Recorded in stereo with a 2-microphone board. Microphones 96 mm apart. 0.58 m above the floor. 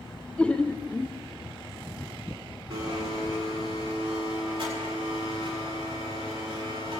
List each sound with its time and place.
0.4 s laughter: 10° left (ahead or behind), 0.9 m
2.7 s a blender: 55° right (ahead or behind), 6 m